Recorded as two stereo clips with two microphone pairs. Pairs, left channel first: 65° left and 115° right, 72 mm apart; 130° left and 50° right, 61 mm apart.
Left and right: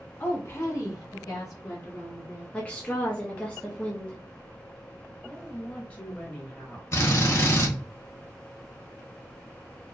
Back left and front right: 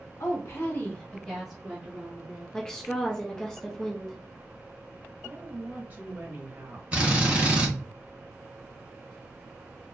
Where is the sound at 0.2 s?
120° left, 1.2 m; by 2.4 s 15° left, 1.8 m.